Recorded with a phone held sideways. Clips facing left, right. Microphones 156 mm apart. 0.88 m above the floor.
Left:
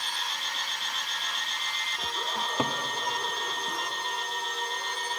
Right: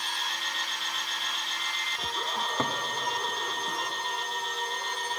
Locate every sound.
2.4 s a cupboard door: 10° left (ahead or behind), 0.7 m